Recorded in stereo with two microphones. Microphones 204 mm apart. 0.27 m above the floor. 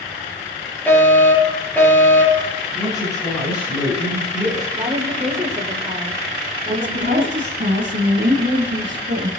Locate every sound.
0.9 s a fire alarm: 10° left (ahead or behind), 7 m
2.7 s a man speaking: 20° left (ahead or behind), 4 m
4.7 s a woman speaking: 30° right (ahead or behind), 5 m
6.7 s a woman speaking: 65° right (ahead or behind), 3 m